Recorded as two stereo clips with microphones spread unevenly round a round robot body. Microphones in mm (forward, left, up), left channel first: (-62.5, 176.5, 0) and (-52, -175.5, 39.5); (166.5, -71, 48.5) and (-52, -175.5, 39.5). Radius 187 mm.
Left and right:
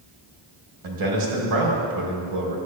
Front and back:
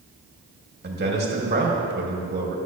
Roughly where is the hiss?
No hiss in this recording.